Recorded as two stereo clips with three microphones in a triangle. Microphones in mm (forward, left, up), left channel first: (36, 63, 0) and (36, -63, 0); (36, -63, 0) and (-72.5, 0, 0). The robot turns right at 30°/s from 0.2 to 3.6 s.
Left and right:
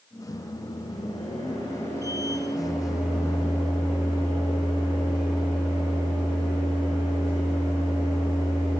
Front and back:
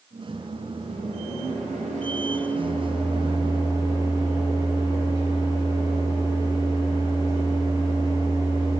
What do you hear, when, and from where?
0.3 s a microwave: 110° left, 2.5 m; by 8.8 s 150° right, 2.5 m